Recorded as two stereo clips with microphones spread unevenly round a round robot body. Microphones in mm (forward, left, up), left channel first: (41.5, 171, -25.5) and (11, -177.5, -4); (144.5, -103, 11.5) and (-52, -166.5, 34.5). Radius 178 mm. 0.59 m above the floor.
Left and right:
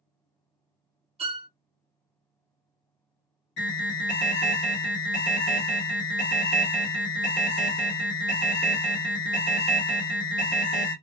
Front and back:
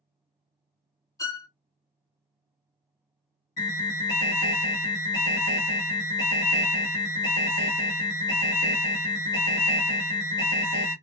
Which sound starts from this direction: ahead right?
A violin, at 1.2 s.